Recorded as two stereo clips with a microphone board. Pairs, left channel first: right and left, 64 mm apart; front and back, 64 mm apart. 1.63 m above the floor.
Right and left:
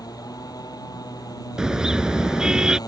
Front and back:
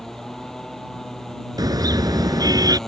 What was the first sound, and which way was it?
A motorcycle, 85° right.